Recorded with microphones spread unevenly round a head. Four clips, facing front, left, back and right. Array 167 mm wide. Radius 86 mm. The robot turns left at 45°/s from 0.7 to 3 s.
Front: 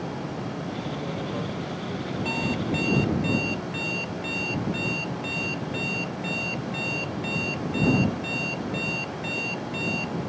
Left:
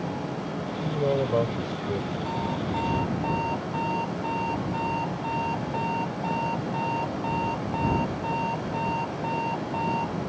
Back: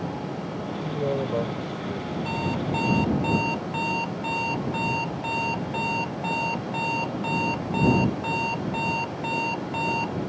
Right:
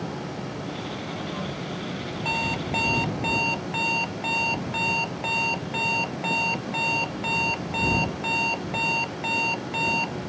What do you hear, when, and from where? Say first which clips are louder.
0.8 s a man speaking: left 8 dB, back 5 dB; 135° left; by 2.1 s 75° left
2.2 s an alarm clock: right 3 dB, even; 55° right; by 10.1 s 85° right